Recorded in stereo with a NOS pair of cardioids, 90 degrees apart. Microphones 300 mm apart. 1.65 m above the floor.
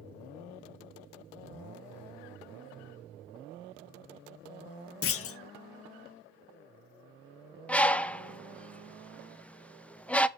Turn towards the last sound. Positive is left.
turn(degrees=5)